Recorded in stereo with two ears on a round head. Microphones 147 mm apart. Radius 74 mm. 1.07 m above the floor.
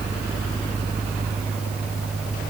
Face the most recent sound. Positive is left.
No sound to turn to.